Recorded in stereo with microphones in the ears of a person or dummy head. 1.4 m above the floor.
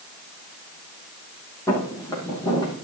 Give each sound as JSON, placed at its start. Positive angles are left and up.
{"t": 1.7, "sound": "footsteps", "side_deg": 10, "distance_m": 3.5}